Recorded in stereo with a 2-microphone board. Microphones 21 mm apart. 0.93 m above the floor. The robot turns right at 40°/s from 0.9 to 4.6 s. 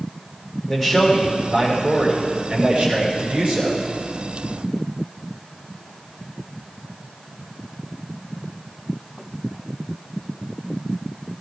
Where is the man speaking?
175° left, 6 m; by 3.8 s 70° right, 6 m.